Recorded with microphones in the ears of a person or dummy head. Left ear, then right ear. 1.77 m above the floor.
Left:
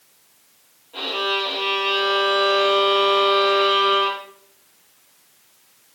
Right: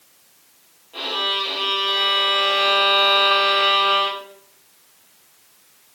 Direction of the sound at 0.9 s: Centre (ahead or behind).